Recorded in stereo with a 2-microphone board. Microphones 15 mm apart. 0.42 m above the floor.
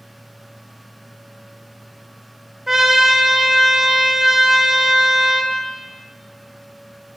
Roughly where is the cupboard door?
I don't hear a cupboard door.